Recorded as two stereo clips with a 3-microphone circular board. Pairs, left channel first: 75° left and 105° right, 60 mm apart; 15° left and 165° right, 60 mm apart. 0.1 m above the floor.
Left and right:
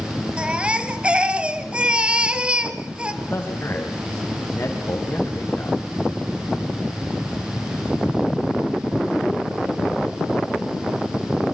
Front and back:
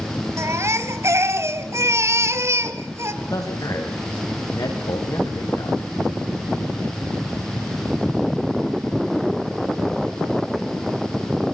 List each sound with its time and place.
0.4 s a baby crying: 170° right, 1.6 m
3.2 s a man speaking: 25° left, 8 m